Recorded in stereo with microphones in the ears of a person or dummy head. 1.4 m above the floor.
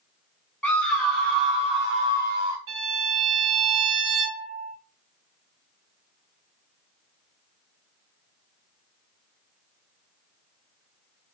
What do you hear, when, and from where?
0.6 s a scream: 10° left (ahead or behind), 0.6 m; by 2.6 s 5° right (ahead or behind), 1.9 m
2.7 s a violin: 25° right (ahead or behind), 1.4 m